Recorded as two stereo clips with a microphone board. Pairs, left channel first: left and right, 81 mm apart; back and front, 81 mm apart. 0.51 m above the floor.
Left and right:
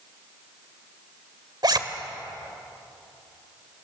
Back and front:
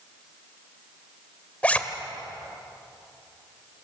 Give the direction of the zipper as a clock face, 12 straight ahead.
4 o'clock.